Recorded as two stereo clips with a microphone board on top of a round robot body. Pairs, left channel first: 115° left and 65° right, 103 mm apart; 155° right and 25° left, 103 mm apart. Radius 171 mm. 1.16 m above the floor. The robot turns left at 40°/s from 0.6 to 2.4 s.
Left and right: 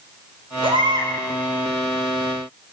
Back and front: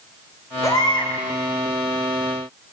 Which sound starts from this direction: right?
A baby crying, at 0.6 s.